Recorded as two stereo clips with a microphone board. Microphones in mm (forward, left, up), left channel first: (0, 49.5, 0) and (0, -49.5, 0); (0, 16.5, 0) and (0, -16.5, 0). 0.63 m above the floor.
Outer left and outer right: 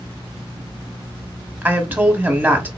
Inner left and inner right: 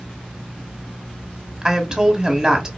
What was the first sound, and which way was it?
A woman speaking, 20° right (ahead or behind).